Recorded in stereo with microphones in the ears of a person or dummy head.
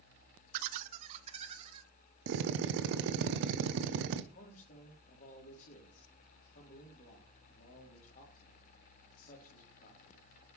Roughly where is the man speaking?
Left.